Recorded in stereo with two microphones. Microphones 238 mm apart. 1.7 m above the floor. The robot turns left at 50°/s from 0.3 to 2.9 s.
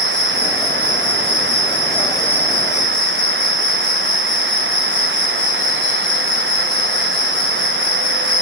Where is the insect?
85° right, 8.5 m; by 8.4 s 145° left, 8.5 m.